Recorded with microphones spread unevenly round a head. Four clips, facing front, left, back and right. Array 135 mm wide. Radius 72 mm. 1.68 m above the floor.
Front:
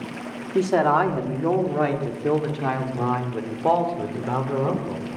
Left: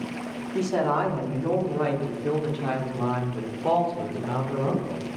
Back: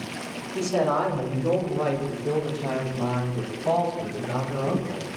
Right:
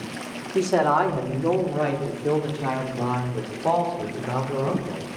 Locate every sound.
0.6 s a man speaking: 35° right, 5 m; by 5.0 s 15° right, 7.5 m